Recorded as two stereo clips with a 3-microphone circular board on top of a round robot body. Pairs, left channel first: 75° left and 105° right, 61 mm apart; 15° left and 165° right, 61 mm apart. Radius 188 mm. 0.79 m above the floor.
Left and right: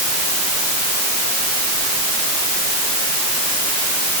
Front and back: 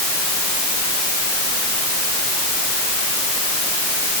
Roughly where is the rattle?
No rattle in this recording.